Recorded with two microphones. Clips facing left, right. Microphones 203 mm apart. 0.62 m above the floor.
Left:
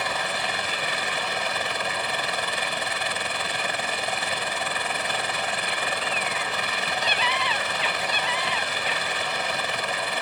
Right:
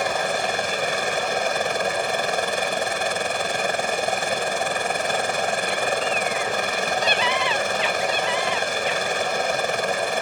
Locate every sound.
0.0 s a helicopter: 45° right (ahead or behind)